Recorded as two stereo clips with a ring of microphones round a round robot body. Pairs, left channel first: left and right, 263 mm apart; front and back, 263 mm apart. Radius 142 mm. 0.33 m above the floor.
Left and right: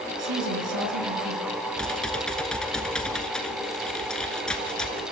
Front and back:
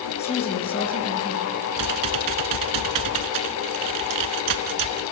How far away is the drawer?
I don't hear a drawer.